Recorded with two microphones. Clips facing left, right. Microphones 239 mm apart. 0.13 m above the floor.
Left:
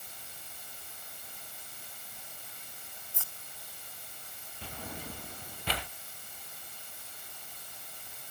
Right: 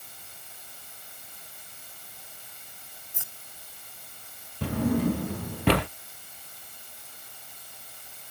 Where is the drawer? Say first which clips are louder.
Right 20 dB; 70° right (ahead or behind).